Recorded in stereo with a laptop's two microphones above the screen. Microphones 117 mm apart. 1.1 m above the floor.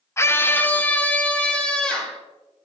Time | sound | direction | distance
0.2 | a scream | 25° left (ahead or behind) | 0.8 m